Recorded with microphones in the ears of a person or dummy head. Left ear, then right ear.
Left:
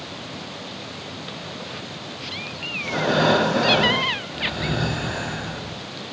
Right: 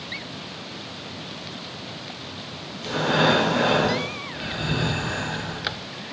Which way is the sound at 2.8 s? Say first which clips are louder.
Even; 30° right (ahead or behind).